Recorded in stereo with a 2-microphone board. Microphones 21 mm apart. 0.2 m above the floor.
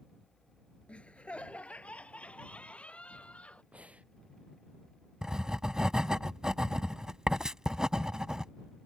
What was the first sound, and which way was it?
Laughter, 60° left (ahead or behind).